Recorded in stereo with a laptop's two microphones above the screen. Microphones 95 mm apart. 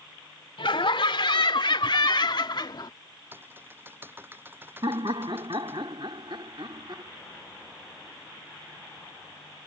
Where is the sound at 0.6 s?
70° left (ahead or behind); by 2.9 s 50° left (ahead or behind).